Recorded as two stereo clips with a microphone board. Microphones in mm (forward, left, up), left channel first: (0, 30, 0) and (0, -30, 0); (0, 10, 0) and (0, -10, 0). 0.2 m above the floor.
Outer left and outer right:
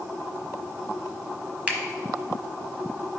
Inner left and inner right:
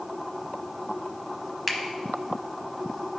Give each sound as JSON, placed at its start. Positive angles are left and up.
{"t": 1.7, "sound": "a finger snap", "side_deg": -20, "distance_m": 0.9}